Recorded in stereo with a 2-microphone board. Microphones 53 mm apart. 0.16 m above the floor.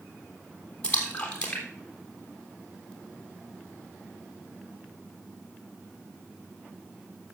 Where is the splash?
25° left (ahead or behind), 3 m.